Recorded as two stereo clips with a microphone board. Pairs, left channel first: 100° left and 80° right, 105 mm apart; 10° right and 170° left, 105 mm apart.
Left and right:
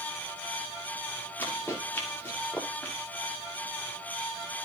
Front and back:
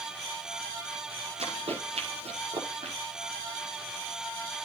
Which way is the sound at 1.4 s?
170° left.